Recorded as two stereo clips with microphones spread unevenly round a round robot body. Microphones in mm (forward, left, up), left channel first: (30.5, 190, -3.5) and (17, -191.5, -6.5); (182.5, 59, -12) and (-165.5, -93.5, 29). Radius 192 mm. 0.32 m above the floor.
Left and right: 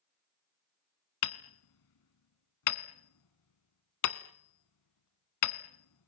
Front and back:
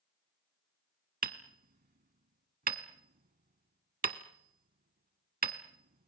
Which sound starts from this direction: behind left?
Hammering, at 1.2 s.